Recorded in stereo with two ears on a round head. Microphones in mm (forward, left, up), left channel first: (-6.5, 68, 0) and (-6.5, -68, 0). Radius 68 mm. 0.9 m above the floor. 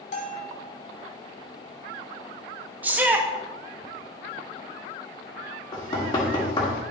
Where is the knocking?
30° left (ahead or behind), 1.5 m.